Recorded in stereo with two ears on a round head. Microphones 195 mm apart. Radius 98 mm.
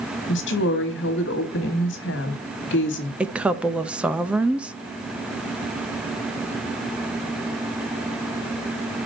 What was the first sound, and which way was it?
A woman speaking, 55° left (ahead or behind).